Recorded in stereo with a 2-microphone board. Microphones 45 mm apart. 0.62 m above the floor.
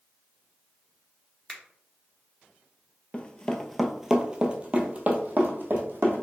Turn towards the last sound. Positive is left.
turn(degrees=-50)  # may be behind; listen again after turning